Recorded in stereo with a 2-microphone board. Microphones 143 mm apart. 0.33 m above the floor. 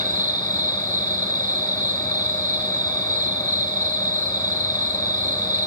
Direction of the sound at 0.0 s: 70° right (ahead or behind).